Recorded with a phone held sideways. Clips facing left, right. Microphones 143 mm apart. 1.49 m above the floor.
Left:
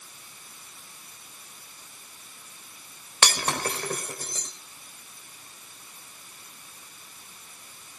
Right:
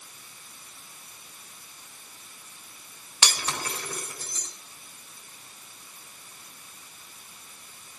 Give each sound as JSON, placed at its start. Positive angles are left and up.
{"t": 3.2, "sound": "breaking glass", "side_deg": 55, "distance_m": 3.5}